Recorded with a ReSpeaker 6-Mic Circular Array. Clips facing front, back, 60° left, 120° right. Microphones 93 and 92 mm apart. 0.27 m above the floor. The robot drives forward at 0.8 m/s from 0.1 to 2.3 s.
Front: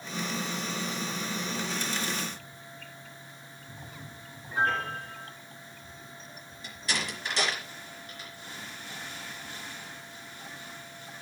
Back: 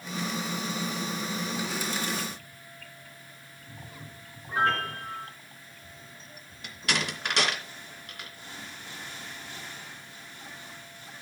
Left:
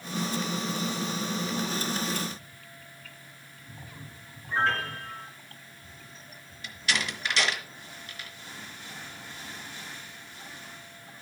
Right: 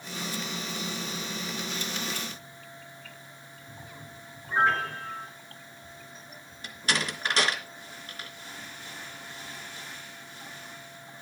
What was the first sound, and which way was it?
A piano, 165° left.